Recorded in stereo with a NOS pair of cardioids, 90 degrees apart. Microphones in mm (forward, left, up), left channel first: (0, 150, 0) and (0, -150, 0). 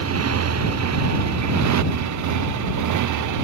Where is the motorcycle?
50° right; by 3.5 s 75° right.